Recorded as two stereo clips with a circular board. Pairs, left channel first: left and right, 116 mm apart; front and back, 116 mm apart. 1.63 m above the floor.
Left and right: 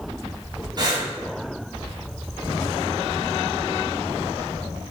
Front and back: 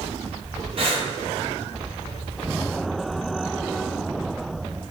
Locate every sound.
0.8 s breathing: 145° right, 0.7 m